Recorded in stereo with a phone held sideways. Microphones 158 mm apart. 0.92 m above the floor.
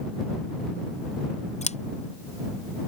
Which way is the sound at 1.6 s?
45° left (ahead or behind).